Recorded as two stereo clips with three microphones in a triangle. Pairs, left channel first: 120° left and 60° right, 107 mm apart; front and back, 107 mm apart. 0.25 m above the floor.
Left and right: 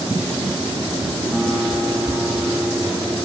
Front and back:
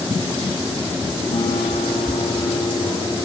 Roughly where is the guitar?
Ahead left.